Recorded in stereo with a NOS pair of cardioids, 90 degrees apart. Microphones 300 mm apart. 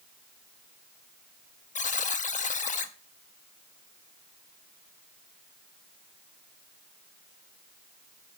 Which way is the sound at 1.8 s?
25° left.